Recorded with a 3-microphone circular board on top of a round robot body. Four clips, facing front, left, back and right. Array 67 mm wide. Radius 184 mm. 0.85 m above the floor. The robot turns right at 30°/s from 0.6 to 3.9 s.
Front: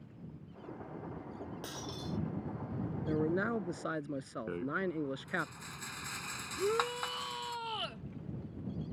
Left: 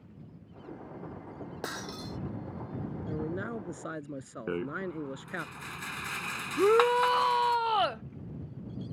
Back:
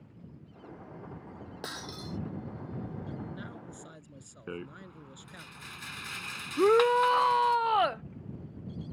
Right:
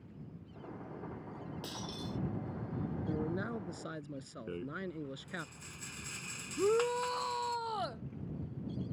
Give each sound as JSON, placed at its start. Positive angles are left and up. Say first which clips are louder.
{"t": 1.6, "sound": "breaking glass", "louder": "left 6 dB, back 5 dB", "azimuth_deg": 105}
{"t": 3.1, "sound": "a man speaking", "louder": "left 3 dB, front 9 dB", "azimuth_deg": 5}
{"t": 4.5, "sound": "a rattle", "louder": "left 8 dB, front 5 dB", "azimuth_deg": 85}
{"t": 6.6, "sound": "a shout", "louder": "left 8 dB, back 12 dB", "azimuth_deg": 155}